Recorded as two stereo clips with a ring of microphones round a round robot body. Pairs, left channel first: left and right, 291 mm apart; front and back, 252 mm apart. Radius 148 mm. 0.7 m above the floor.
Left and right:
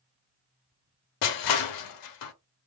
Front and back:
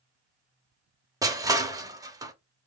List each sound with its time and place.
1.2 s crushing: 105° left, 0.7 m